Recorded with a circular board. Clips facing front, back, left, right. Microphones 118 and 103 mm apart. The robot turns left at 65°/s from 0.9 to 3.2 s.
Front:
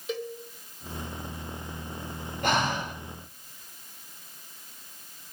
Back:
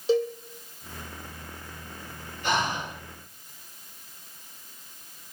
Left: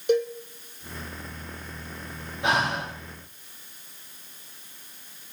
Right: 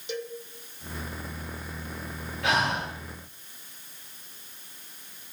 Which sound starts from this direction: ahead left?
Breathing, at 2.4 s.